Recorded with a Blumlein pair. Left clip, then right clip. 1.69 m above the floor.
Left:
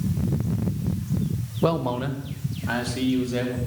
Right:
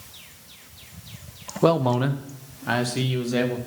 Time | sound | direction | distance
1.6 | a man speaking | 10° right | 0.8 m